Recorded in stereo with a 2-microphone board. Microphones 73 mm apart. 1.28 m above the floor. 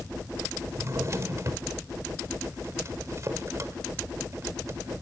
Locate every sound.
0.7 s a drawer: 45° right (ahead or behind), 1.2 m